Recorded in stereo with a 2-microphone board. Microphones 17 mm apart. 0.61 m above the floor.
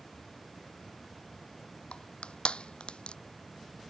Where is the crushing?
75° left (ahead or behind).